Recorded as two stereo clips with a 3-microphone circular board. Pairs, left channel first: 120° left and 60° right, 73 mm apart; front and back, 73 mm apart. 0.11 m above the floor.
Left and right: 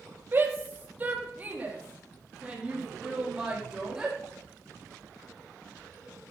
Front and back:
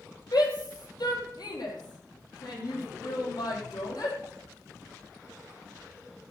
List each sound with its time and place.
0.3 s a shout: 5° right, 3.5 m; by 4.2 s 25° left, 5.5 m